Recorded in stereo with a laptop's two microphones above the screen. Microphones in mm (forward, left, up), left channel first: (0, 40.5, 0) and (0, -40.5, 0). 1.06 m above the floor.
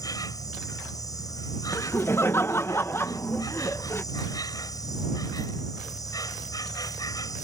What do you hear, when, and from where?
0.0 s an insect: 50° left (ahead or behind)
1.7 s laughter: 30° left (ahead or behind)